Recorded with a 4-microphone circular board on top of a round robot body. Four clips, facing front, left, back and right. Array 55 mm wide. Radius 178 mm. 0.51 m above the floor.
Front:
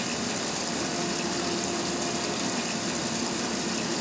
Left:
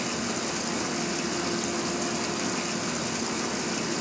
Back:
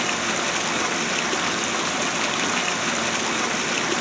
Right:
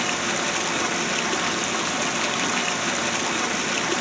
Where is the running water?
140° right, 0.8 m.